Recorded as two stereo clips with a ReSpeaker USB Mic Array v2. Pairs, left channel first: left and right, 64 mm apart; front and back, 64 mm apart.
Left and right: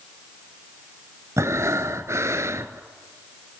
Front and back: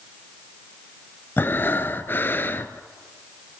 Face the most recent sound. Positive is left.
turn(degrees=-55)